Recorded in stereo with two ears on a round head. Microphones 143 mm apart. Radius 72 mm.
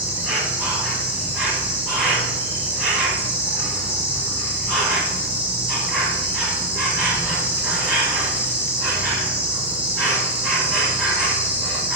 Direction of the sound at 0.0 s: 10° right (ahead or behind).